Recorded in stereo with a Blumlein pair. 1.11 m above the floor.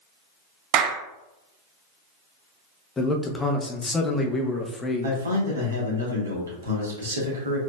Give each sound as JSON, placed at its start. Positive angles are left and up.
{"t": 0.7, "sound": "a clap", "azimuth_deg": -40, "distance_m": 0.7}
{"t": 3.0, "sound": "a man speaking", "azimuth_deg": 10, "distance_m": 0.7}
{"t": 5.0, "sound": "a man speaking", "azimuth_deg": -70, "distance_m": 1.4}